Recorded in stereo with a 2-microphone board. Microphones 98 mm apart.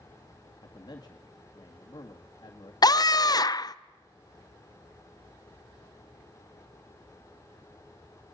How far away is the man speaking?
About 2 m.